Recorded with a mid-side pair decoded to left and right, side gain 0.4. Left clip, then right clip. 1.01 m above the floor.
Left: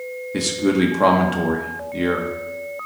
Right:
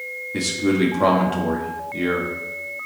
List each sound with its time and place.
0.3 s a man speaking: 25° left, 1.6 m